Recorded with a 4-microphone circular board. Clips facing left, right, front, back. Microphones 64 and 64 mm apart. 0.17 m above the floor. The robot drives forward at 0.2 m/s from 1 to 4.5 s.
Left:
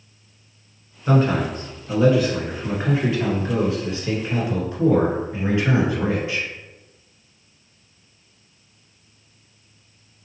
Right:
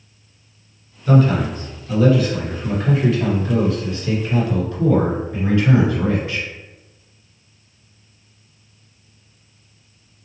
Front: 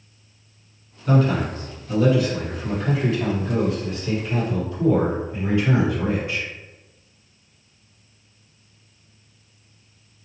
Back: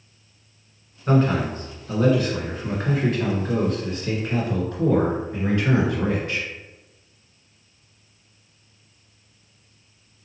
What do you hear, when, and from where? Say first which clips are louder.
1.1 s a man speaking: right 3 dB, even; 140° left, 1.4 m; by 6.5 s 155° left, 1.8 m